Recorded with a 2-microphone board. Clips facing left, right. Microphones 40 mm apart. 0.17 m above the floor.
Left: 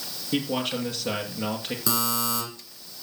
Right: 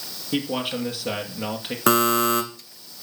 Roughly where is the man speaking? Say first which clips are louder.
Right 1 dB; centre.